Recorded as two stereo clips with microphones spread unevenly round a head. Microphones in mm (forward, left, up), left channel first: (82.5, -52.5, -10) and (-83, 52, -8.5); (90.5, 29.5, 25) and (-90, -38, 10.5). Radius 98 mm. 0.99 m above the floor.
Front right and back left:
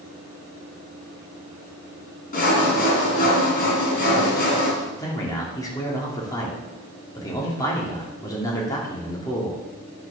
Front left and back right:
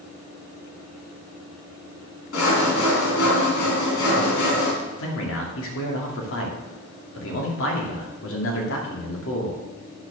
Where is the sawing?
15° left, 3 m.